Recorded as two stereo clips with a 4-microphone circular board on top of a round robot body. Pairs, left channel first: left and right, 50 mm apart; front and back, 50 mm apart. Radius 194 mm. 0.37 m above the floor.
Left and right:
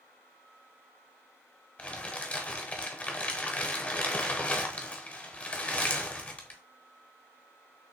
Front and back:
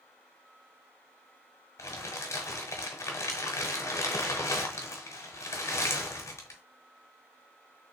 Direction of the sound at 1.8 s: 25° left.